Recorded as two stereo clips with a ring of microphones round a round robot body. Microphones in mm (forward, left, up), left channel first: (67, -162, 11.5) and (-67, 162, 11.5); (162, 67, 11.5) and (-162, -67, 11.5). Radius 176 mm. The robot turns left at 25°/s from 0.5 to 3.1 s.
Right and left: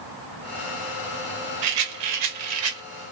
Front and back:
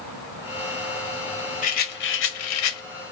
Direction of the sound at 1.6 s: 90° left.